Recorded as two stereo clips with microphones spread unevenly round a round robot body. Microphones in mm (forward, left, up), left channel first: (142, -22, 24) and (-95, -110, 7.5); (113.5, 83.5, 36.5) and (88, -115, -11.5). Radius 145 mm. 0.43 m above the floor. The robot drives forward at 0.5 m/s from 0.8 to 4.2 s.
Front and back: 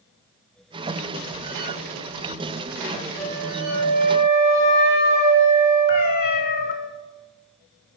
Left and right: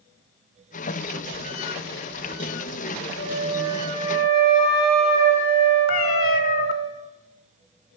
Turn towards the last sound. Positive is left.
turn(degrees=70)